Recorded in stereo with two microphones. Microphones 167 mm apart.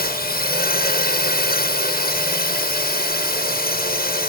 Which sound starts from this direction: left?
A drone, at 0.0 s.